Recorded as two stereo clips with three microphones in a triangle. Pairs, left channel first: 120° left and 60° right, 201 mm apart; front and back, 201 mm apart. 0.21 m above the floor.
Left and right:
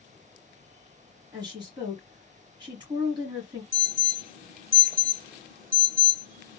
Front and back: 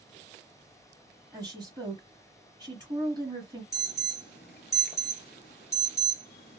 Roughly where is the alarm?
Ahead right.